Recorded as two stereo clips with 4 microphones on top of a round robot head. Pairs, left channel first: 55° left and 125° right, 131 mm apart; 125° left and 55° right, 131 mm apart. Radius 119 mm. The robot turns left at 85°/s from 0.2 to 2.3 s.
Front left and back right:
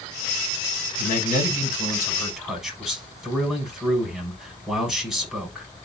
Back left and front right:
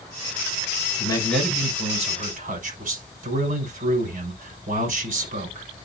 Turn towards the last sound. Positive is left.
turn(degrees=-40)